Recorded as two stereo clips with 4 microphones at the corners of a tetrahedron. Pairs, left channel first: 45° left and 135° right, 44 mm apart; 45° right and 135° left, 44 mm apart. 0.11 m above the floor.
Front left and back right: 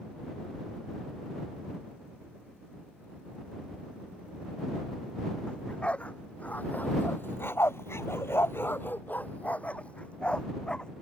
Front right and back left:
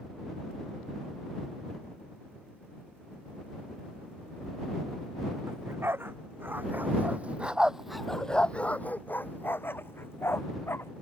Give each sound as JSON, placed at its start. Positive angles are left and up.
{"t": 5.5, "sound": "a dog barking", "azimuth_deg": 110}